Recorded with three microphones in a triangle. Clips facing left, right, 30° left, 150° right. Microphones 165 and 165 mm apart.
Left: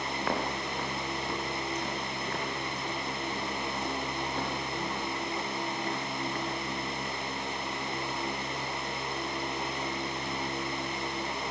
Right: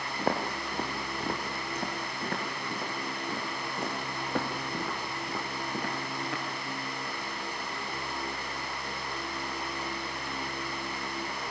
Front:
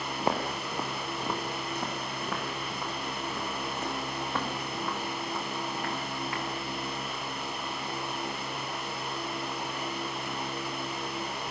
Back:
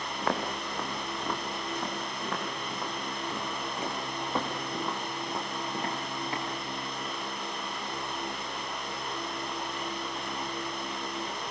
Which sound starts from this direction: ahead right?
Footsteps, at 0.2 s.